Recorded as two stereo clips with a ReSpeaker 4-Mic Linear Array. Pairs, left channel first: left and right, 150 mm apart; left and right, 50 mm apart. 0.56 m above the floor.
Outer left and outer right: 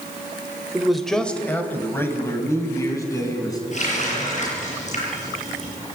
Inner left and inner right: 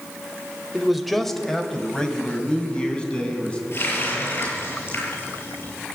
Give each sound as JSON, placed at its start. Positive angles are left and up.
{"t": 0.7, "sound": "a man speaking", "side_deg": -5, "distance_m": 1.8}
{"t": 3.7, "sound": "a running tap", "side_deg": 50, "distance_m": 8.5}